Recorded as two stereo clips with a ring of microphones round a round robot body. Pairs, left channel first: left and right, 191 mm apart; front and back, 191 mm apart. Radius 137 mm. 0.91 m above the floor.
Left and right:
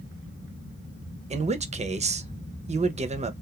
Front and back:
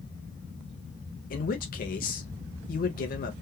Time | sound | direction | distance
1.3 | a man speaking | 40° right | 0.5 m